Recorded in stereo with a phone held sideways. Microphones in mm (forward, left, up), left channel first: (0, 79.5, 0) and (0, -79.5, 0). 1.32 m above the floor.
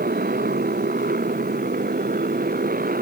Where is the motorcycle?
75° right (ahead or behind); by 3.0 s 70° right (ahead or behind).